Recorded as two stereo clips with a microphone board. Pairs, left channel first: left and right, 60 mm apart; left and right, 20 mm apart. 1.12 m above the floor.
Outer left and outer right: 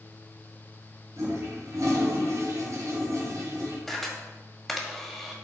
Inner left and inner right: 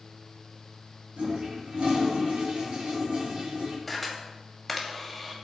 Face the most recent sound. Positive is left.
turn(degrees=0)  # may be behind; listen again after turning